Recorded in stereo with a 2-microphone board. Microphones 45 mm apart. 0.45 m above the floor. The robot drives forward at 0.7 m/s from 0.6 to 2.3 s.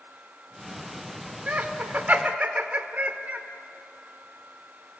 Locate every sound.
1.5 s laughter: 35° right (ahead or behind), 1.2 m